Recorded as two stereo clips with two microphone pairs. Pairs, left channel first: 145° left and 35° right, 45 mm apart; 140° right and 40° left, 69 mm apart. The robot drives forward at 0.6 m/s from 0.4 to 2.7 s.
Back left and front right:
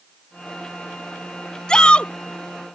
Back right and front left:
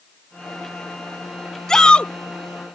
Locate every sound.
1.7 s a shout: 155° left; by 2.1 s 165° left